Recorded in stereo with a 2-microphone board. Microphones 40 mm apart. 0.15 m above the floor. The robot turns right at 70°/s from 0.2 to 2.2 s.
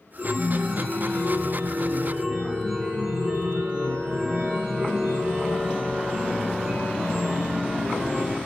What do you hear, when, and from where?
0.2 s a chime: straight behind, 3 m; by 8.4 s 40° right, 3 m